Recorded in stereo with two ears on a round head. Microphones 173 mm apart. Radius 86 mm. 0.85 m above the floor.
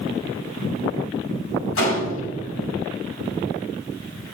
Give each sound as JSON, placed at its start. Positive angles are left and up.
{"t": 1.8, "sound": "a gunshot", "side_deg": 80, "distance_m": 5.5}